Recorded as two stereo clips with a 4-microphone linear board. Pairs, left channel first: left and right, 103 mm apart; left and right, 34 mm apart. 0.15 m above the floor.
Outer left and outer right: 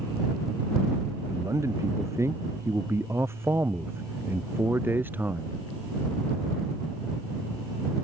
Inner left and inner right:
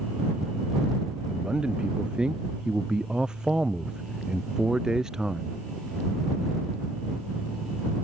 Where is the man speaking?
30° right (ahead or behind); by 5.6 s 15° right (ahead or behind).